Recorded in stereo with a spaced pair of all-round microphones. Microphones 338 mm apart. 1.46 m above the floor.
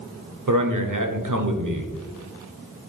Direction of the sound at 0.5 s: 65° right (ahead or behind).